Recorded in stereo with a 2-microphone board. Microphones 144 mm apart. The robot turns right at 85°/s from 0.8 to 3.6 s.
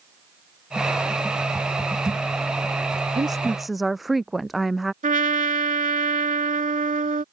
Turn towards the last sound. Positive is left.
turn(degrees=-65)  # may be behind; listen again after turning